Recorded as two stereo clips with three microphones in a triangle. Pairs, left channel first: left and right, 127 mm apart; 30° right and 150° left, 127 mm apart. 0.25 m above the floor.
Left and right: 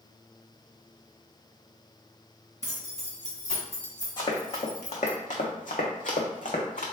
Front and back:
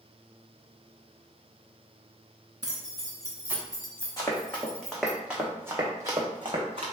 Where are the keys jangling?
100° left, 1.6 m; by 5.2 s 25° right, 1.2 m.